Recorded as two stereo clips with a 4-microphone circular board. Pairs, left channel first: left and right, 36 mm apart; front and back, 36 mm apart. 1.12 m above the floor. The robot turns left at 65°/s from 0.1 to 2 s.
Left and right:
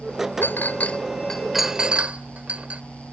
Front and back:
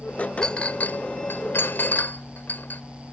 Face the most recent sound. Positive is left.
turn(degrees=-35)